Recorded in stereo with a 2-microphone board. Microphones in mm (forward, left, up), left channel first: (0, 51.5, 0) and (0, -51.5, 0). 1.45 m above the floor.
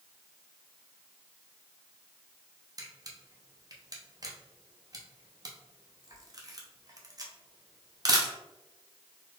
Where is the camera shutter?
40° right (ahead or behind), 0.8 m.